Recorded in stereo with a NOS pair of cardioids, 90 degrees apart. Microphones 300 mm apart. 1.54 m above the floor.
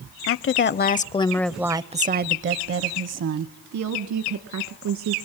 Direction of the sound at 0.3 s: 50° left.